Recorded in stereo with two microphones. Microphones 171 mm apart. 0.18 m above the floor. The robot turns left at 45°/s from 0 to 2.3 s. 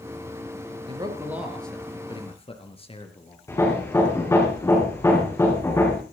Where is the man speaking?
30° right (ahead or behind), 3 m; by 3.4 s 30° left (ahead or behind), 3 m.